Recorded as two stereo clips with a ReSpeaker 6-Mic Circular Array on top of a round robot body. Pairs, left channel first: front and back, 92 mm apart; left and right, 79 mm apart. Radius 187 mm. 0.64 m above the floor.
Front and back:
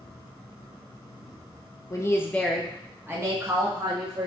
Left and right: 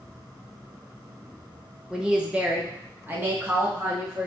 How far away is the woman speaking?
About 1.2 m.